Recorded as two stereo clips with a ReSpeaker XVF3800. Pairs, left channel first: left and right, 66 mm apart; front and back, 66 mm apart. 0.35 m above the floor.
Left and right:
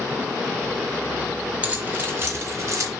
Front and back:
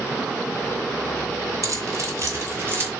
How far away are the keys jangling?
About 1.5 m.